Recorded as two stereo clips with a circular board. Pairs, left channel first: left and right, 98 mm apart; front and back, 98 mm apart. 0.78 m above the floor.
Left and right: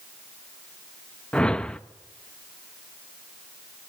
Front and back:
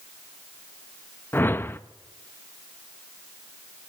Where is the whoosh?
25° left, 0.5 m.